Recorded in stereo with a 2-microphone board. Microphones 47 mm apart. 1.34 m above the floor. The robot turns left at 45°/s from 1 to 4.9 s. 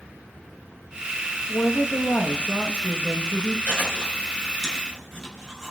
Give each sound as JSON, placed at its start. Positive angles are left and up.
{"t": 1.5, "sound": "a woman speaking", "azimuth_deg": 85, "distance_m": 1.2}
{"t": 3.7, "sound": "chewing", "side_deg": 45, "distance_m": 5.0}